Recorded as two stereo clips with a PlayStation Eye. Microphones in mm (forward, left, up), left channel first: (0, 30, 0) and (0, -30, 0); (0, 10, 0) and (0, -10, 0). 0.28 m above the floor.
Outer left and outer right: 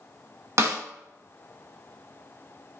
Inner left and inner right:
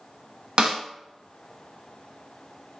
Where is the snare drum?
50° right (ahead or behind), 0.8 m.